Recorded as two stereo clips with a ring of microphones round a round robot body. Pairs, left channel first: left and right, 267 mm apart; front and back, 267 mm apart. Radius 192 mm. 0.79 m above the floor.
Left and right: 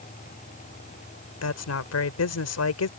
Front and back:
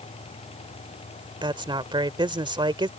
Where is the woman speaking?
110° left.